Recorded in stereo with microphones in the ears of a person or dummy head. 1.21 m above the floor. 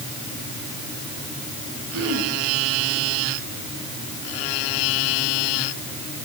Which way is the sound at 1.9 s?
70° right (ahead or behind).